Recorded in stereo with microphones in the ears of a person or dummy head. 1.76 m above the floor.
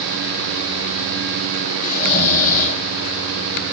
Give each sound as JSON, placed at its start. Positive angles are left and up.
{"t": 1.8, "sound": "snoring", "side_deg": 40, "distance_m": 6.0}